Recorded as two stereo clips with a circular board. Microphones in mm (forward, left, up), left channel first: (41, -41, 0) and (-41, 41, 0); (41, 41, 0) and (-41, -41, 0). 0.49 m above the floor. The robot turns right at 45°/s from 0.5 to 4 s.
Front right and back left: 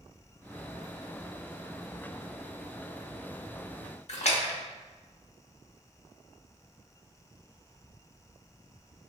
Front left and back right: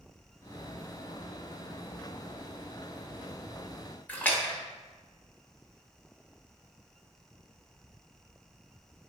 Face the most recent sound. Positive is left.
turn(degrees=-30)